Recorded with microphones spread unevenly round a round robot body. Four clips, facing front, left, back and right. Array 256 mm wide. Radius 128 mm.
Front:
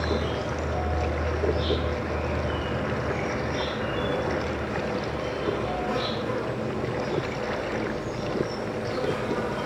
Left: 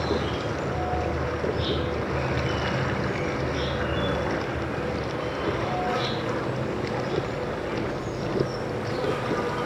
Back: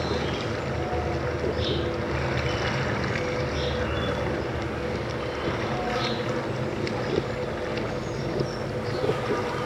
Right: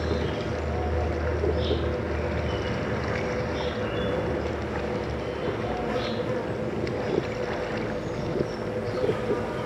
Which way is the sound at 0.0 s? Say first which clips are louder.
Left 1 dB, even; 85° left.